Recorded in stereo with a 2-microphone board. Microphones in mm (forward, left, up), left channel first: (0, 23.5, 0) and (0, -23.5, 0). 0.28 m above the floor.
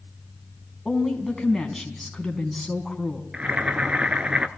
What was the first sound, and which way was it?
A woman speaking, 10° left (ahead or behind).